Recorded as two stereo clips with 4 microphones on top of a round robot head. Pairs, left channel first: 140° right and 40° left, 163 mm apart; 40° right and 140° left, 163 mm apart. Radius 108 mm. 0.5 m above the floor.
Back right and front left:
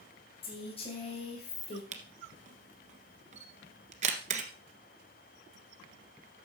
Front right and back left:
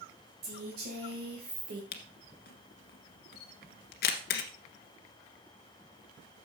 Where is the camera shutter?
10° right, 1.4 m.